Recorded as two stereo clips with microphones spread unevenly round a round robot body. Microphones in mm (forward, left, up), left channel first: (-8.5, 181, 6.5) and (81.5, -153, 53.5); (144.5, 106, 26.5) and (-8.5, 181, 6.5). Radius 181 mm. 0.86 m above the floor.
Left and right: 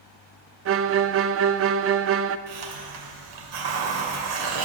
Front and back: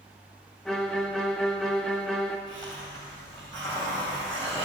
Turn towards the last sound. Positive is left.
turn(degrees=-105)